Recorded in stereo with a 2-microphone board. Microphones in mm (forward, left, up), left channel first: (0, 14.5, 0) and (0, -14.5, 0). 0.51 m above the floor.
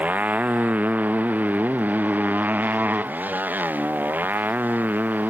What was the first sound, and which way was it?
A motorcycle, 65° right (ahead or behind).